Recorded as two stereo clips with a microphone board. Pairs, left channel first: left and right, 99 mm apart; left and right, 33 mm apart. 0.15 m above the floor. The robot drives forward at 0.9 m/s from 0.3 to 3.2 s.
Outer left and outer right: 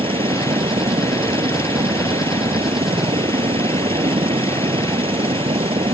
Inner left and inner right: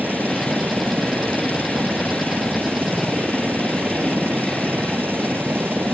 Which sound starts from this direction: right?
A helicopter, at 0.0 s.